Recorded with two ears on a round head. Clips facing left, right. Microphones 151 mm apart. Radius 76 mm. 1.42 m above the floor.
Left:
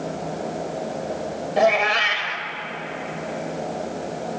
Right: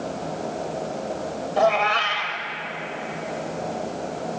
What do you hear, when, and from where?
1.6 s a cat meowing: 20° left (ahead or behind), 1.8 m